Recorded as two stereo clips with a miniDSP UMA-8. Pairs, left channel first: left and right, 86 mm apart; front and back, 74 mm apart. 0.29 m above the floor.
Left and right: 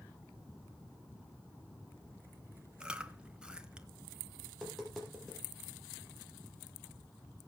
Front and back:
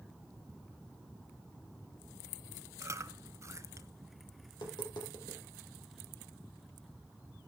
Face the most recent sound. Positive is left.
turn(degrees=5)